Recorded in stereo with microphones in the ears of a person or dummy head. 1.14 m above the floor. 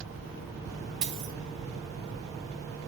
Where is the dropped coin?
35° right (ahead or behind), 1.5 m.